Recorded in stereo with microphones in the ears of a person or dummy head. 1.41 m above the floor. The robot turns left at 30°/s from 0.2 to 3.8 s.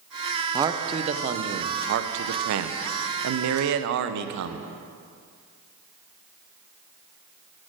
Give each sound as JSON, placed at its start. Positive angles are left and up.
{"t": 0.5, "sound": "a man speaking", "azimuth_deg": -20, "distance_m": 0.5}